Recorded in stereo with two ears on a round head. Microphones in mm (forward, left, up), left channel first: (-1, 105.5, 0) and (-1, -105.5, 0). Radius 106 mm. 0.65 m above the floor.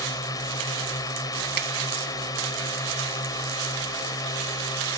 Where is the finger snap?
45° right (ahead or behind).